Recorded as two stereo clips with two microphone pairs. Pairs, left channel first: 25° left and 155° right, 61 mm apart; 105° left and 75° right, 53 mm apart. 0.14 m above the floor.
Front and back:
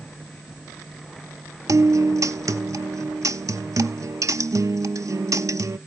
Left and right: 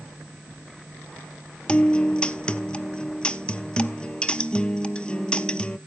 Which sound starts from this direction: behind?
A guitar, at 1.7 s.